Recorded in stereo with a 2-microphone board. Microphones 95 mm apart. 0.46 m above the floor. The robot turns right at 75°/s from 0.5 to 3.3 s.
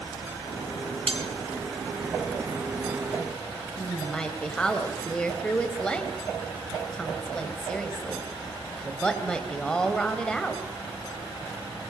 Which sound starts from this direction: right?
Cutlery clinking, at 1.1 s.